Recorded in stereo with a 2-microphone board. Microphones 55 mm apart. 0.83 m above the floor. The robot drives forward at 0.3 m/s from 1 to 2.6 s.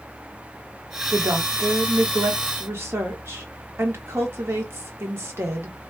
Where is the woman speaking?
70° right (ahead or behind), 1.5 m; by 5.8 s 55° right (ahead or behind), 1.7 m.